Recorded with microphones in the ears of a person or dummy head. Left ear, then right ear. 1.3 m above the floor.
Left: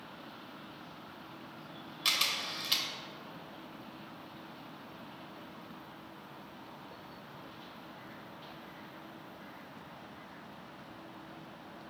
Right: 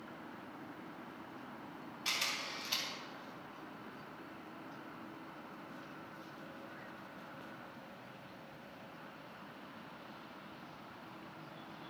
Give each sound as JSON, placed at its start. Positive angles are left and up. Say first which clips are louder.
{"t": 2.0, "sound": "a camera shutter", "louder": "left 6 dB", "side_deg": 55, "distance_m": 2.5}